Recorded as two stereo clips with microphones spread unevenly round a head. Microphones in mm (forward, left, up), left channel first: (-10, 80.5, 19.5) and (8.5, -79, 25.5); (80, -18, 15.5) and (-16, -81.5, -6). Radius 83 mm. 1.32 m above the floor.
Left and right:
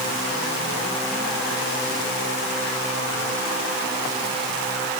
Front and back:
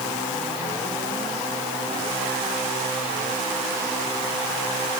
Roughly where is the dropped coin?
No dropped coin in this recording.